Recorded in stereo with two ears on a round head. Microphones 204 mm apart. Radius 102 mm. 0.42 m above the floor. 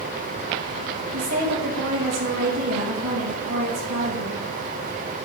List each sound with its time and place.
1.1 s a woman speaking: 75° right (ahead or behind), 3.5 m